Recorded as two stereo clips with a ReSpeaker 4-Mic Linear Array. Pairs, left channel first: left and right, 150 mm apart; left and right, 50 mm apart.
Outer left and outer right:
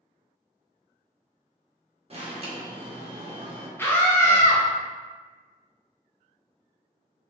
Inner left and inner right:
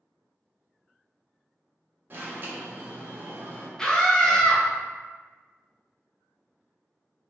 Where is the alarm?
40° right (ahead or behind), 0.7 m.